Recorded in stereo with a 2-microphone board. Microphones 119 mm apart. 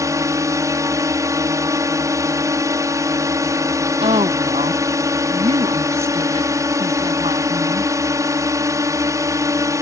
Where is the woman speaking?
55° right (ahead or behind).